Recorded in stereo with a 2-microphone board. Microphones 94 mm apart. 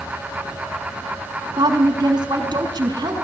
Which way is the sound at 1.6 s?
50° right (ahead or behind).